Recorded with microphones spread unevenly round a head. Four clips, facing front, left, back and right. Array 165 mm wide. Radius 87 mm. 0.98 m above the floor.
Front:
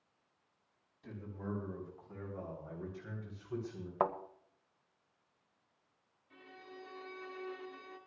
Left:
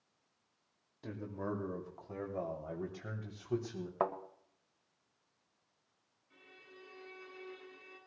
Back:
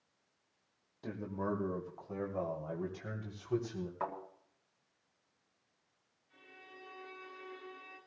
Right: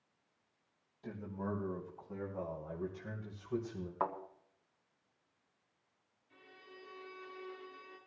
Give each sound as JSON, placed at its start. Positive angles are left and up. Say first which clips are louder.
{"t": 1.0, "sound": "a man speaking", "louder": "left 1 dB, back 6 dB", "azimuth_deg": 140, "distance_m": 2.0}
{"t": 4.0, "sound": "a thud", "louder": "left 2 dB, front 7 dB", "azimuth_deg": 45, "distance_m": 1.7}
{"t": 6.3, "sound": "a violin", "louder": "right 2 dB, front 4 dB", "azimuth_deg": -5, "distance_m": 5.5}